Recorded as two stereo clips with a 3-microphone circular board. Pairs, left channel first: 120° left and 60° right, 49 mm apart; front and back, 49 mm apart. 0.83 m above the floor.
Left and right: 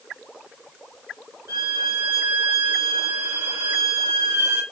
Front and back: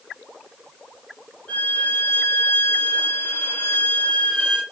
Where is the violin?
55° right, 1.5 m.